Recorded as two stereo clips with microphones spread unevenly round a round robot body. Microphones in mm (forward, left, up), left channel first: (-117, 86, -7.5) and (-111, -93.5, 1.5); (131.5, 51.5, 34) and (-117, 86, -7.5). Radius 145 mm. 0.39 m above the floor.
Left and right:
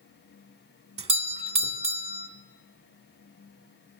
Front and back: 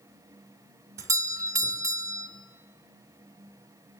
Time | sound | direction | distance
1.0 | a doorbell | 125° right | 1.7 m